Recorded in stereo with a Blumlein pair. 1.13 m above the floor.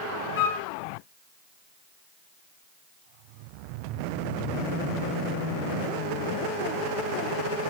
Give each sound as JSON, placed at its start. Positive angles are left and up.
{"t": 0.4, "sound": "a flute", "azimuth_deg": 55, "distance_m": 0.7}